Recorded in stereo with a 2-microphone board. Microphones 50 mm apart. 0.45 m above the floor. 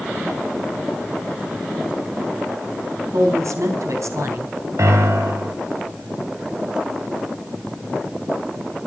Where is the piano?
75° right (ahead or behind), 2 m.